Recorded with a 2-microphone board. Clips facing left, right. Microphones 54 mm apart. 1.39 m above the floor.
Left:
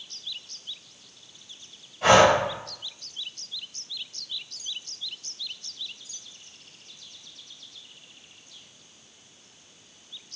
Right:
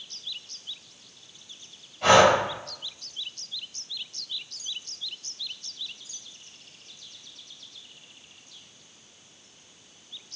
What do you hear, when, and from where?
2.0 s breathing: 10° left (ahead or behind), 1.6 m